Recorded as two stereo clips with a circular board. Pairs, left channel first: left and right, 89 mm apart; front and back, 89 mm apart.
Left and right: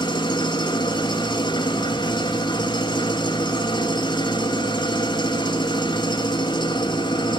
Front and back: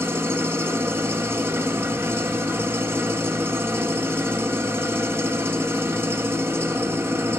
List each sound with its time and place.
0.0 s an engine running: 115° left, 1.2 m